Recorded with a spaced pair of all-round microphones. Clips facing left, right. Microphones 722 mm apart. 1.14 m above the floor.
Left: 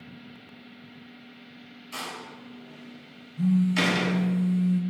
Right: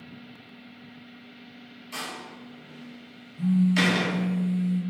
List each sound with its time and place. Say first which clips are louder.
1.9 s a door slam: right 1 dB; 5° right (ahead or behind), 1.9 m
3.4 s a phone buzzing: right 1 dB; 70° left (ahead or behind), 1.3 m